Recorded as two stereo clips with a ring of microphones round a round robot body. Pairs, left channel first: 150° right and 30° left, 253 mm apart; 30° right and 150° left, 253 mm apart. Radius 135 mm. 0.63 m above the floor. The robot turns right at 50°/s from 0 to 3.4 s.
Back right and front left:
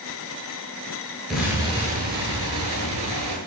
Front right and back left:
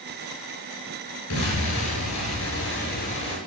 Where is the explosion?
60° right, 8.5 m; by 3.4 s 45° left, 8.5 m.